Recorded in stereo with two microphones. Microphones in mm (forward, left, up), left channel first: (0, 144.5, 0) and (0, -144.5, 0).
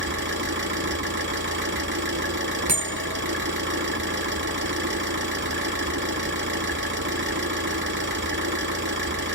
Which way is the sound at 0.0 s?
40° right (ahead or behind).